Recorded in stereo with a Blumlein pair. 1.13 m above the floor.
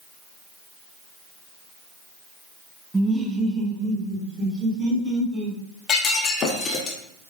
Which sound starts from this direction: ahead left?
Breaking glass, at 5.9 s.